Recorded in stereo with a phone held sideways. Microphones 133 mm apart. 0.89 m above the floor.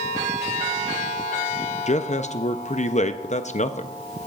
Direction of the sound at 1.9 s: 60° left (ahead or behind).